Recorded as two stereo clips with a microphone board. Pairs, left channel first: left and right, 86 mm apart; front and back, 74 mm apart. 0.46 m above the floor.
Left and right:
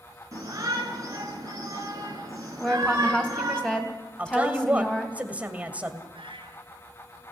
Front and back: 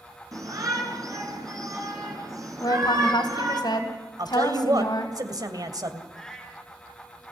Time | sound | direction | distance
0.3 | a shout | 140° right | 5 m
2.6 | a woman speaking | 10° left | 3 m
4.2 | a woman speaking | 160° right | 2 m
6.1 | a cat meowing | 85° right | 3 m